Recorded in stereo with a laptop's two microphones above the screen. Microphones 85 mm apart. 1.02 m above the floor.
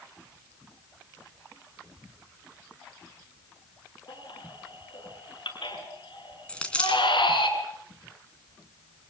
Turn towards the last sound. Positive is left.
turn(degrees=15)  # may be behind; listen again after turning